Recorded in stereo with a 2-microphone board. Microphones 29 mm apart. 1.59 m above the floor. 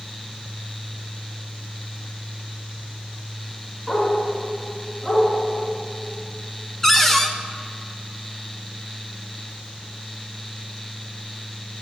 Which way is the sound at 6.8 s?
15° left (ahead or behind).